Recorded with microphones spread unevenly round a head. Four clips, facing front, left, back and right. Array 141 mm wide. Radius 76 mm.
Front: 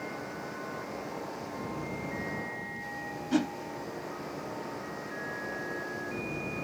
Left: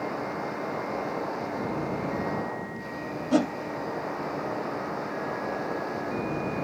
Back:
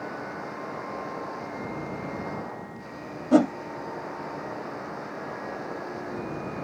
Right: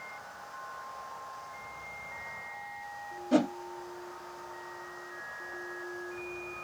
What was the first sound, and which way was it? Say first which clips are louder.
A machine running: left 15 dB, back 4 dB; 100° left.